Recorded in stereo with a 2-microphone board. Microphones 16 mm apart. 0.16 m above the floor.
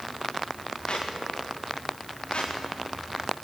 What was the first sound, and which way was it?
A squeak, 75° left (ahead or behind).